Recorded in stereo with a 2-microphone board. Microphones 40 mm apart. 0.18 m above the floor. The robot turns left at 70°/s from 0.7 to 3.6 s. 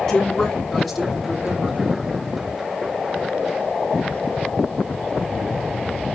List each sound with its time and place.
0.1 s a woman speaking: 20° left, 2 m; by 1.8 s 55° right, 2 m